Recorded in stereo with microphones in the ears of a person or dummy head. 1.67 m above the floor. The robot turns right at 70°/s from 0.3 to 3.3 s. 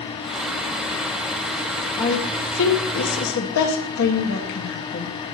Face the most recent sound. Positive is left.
turn(degrees=60)  # may be behind; listen again after turning